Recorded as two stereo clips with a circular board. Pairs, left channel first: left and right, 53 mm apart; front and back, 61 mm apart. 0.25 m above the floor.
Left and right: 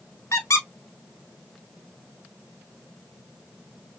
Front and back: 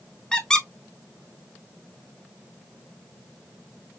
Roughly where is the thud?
I don't hear a thud.